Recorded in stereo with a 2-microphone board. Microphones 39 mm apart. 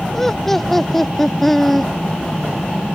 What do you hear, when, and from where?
0.1 s laughter: 10° left (ahead or behind); by 1.9 s 5° left (ahead or behind)